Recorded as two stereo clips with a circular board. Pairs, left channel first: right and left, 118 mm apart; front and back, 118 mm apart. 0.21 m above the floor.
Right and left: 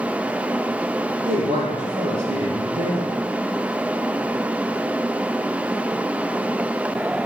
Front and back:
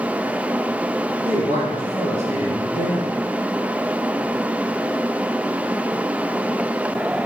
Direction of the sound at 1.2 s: 130° left.